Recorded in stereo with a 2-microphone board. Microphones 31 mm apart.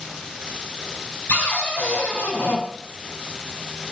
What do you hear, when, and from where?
1.3 s a cupboard door: 75° left (ahead or behind), 3.5 m